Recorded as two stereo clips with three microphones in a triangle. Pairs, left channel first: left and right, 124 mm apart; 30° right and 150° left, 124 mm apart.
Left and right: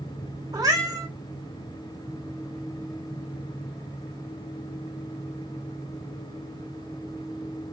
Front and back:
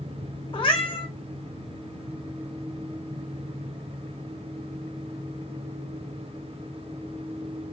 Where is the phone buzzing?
No phone buzzing in this recording.